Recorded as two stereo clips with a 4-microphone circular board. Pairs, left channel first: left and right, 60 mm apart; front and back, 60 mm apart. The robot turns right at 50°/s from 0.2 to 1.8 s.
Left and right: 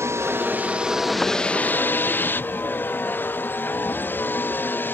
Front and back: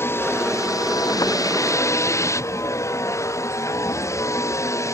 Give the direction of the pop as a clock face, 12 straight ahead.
I don't hear a pop.